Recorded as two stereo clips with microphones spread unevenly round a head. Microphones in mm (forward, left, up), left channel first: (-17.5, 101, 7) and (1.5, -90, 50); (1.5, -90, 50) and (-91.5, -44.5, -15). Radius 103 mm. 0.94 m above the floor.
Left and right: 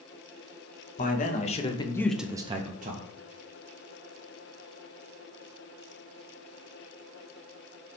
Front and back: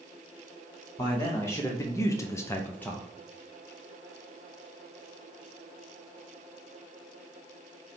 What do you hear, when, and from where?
1.0 s a man speaking: 65° left, 1.3 m; by 3.1 s 130° right, 0.9 m